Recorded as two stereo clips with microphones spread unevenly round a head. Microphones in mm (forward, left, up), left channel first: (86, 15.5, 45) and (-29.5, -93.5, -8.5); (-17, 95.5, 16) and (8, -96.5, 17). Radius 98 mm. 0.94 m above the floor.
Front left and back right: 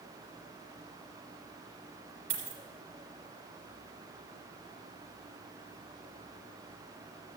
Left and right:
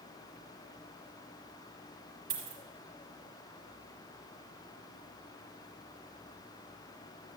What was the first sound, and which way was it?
A dropped coin, 120° right.